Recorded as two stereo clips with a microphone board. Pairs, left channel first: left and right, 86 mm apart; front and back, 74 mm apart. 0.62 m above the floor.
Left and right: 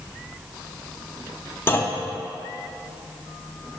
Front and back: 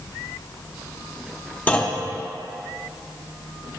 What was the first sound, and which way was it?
A clunk, 55° left.